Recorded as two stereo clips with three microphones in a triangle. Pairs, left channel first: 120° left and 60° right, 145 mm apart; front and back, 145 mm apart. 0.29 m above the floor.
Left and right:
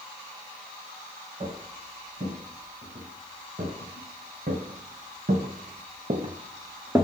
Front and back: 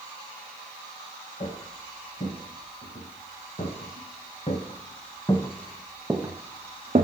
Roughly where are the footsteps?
Ahead right.